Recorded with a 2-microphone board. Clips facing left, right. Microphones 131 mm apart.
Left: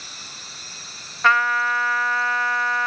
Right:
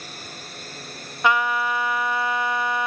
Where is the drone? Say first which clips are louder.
Right 5 dB; 50° right (ahead or behind); by 2.9 s 55° right (ahead or behind).